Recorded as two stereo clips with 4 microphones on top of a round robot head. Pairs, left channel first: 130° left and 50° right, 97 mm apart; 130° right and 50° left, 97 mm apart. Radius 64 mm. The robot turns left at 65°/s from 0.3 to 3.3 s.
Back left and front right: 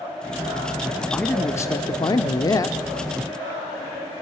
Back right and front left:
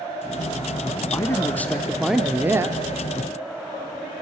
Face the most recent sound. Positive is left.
turn(degrees=60)